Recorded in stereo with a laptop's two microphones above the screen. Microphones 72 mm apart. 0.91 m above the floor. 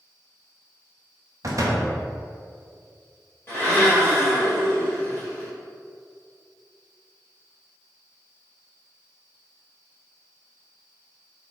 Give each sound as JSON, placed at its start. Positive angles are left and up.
{"t": 1.4, "sound": "a door slam", "side_deg": -50, "distance_m": 0.5}
{"t": 3.5, "sound": "a blender", "side_deg": 30, "distance_m": 1.5}